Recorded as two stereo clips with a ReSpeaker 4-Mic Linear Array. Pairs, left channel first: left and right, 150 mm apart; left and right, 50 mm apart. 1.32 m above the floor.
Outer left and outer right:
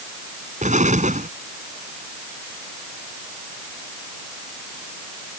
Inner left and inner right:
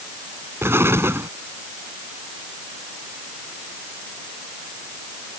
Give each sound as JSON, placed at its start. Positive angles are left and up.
{"t": 0.6, "sound": "an explosion", "side_deg": -55}